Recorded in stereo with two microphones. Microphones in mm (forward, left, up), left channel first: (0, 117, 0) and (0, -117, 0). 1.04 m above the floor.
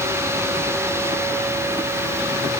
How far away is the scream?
No scream in this recording.